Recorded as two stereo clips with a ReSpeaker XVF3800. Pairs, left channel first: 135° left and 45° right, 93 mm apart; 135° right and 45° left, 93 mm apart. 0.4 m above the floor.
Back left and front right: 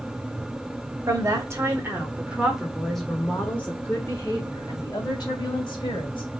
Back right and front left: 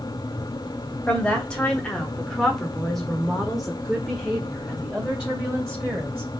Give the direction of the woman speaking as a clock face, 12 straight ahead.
2 o'clock.